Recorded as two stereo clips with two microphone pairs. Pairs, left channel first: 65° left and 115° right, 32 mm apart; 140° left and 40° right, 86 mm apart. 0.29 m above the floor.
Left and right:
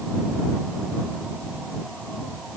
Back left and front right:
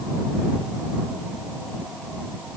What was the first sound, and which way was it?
Only background noise.